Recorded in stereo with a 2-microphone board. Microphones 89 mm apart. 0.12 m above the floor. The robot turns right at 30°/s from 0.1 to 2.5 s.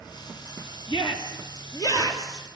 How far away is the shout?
About 3.5 m.